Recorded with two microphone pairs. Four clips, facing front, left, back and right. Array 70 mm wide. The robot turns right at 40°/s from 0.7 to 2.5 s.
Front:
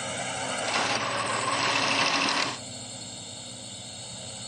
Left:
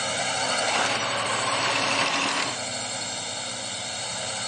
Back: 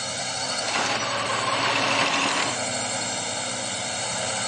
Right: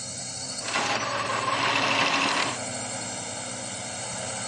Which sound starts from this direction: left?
A drone, at 0.0 s.